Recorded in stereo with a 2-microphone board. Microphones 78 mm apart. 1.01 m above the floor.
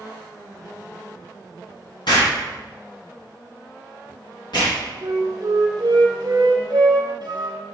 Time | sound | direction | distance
2.1 | an explosion | 65° left (ahead or behind) | 2 m
5.0 | a flute | 70° right (ahead or behind) | 1.5 m